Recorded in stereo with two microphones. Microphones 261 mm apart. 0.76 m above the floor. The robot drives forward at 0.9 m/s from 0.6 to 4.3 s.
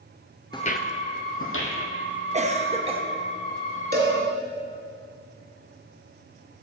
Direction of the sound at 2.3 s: 25° right (ahead or behind).